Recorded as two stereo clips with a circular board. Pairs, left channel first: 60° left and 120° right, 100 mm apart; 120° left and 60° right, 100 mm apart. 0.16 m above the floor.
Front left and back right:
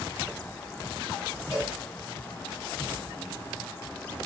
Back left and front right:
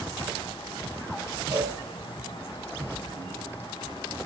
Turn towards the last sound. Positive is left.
turn(degrees=-35)